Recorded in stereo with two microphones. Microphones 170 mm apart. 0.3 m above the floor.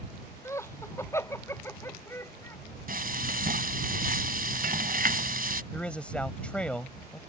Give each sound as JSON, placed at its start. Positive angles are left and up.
{"t": 0.5, "sound": "laughter", "side_deg": 15}
{"t": 2.9, "sound": "frying", "side_deg": -60}
{"t": 5.7, "sound": "a man speaking", "side_deg": 5}